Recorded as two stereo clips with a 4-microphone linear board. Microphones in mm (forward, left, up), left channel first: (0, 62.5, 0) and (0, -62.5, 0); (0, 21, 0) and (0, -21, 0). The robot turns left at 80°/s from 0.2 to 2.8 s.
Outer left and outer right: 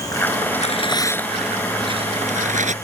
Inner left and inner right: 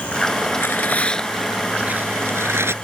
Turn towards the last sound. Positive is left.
turn(degrees=-115)